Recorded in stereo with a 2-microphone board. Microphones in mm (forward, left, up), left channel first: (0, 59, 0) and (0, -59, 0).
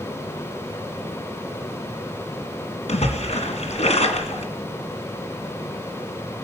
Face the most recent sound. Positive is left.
turn(degrees=65)  # may be behind; listen again after turning